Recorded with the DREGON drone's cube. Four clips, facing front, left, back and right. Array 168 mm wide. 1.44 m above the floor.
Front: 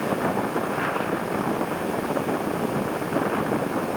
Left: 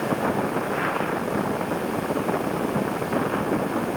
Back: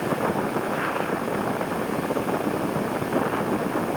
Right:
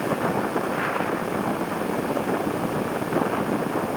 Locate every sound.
Only background noise.